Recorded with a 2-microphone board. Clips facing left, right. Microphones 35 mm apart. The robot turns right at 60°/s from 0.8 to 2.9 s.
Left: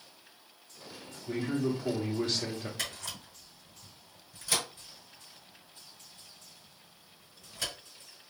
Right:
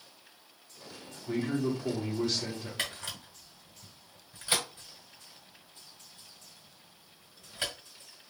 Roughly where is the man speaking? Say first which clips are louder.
Right 1 dB; ahead.